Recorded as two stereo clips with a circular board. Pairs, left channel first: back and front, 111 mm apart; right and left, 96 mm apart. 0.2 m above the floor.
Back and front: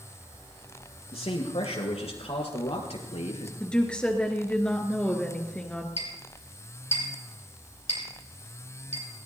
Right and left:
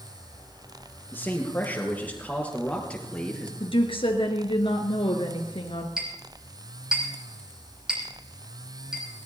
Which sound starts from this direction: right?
A woman speaking, at 3.6 s.